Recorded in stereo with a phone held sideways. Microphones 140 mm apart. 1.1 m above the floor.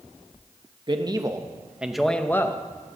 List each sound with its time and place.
0.9 s a man speaking: 35° right (ahead or behind), 1.2 m; by 2.6 s 25° left (ahead or behind), 1.0 m